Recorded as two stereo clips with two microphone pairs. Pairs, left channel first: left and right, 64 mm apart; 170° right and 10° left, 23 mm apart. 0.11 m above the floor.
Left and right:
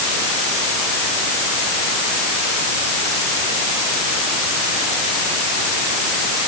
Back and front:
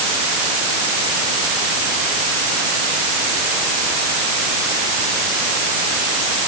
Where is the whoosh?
I don't hear a whoosh.